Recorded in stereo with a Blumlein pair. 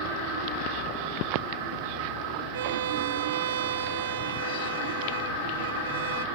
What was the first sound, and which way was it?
A violin, 60° right.